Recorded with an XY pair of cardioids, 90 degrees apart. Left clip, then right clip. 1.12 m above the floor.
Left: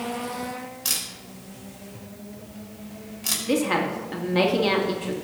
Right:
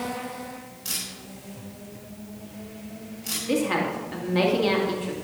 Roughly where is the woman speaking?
Ahead.